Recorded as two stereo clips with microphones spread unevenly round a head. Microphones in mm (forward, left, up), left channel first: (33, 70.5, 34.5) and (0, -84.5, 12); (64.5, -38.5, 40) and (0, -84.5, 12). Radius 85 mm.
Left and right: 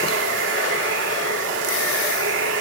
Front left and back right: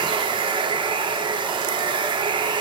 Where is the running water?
115° right, 1.3 m.